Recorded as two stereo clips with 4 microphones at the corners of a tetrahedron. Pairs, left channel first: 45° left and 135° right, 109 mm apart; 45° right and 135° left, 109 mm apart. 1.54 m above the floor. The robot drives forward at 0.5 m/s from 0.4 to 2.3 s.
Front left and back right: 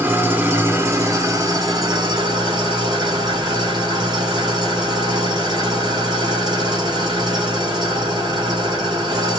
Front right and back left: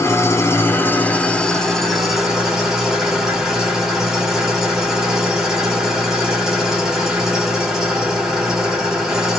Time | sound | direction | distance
0.0 | an engine running | 80° right | 1.3 m